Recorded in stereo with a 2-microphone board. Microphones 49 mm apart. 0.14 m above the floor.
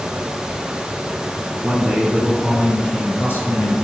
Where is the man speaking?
25° right (ahead or behind), 1.1 m; by 3.7 s 55° left (ahead or behind), 2 m.